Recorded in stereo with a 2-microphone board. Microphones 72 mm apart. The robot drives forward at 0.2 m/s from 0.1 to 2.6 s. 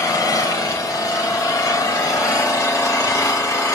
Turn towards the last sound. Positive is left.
turn(degrees=50)  # may be behind; listen again after turning